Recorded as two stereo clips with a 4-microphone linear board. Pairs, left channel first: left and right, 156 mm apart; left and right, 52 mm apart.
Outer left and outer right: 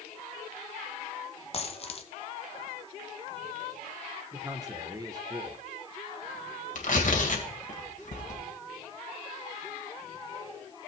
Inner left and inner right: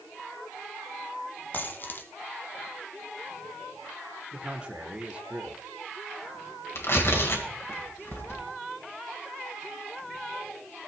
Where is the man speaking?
25° right (ahead or behind), 1.1 m.